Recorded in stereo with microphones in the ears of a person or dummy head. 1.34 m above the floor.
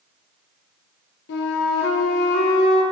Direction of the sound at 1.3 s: 65° left (ahead or behind).